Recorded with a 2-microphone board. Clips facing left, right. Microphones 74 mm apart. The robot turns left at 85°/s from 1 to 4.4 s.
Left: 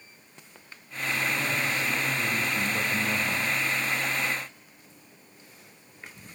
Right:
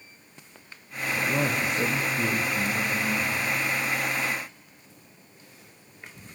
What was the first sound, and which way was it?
A man speaking, 60° right.